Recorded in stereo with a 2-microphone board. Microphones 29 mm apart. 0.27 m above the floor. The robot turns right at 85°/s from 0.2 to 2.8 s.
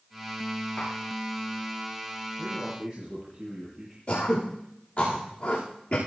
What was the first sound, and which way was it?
Tapping, 20° left (ahead or behind).